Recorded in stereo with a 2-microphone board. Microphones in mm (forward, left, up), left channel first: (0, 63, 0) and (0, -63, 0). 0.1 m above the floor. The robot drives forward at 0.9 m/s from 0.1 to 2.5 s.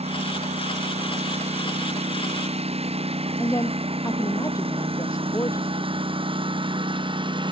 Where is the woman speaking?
25° left (ahead or behind).